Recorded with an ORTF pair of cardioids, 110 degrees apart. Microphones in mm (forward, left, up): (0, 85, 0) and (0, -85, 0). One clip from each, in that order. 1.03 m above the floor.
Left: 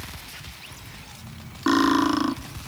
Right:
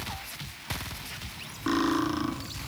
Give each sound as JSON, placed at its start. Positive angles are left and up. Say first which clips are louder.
{"t": 1.7, "sound": "cutlery clinking", "louder": "left 7 dB", "azimuth_deg": 40, "distance_m": 1.6}